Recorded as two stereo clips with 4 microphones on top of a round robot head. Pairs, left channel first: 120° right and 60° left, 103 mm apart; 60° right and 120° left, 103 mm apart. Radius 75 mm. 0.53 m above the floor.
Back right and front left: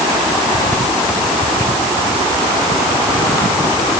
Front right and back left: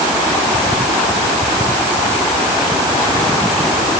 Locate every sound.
Only background noise.